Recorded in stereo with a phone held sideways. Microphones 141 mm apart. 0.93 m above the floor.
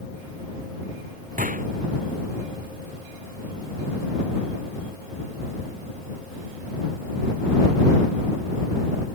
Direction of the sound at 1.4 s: 70° right (ahead or behind).